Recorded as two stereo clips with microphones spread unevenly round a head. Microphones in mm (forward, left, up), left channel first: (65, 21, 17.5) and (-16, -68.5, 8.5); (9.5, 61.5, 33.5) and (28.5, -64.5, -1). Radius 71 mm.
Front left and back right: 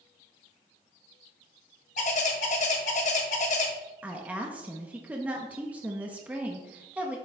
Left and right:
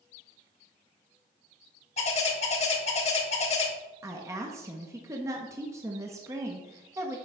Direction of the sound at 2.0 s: 80° left.